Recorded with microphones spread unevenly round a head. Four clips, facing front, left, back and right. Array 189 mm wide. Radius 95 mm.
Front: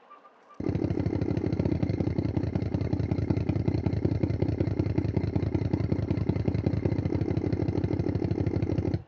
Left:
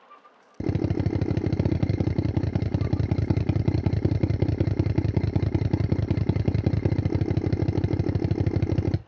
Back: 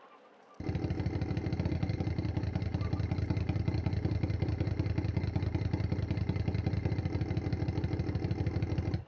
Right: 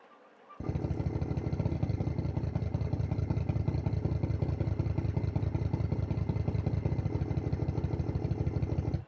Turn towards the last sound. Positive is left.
turn(degrees=70)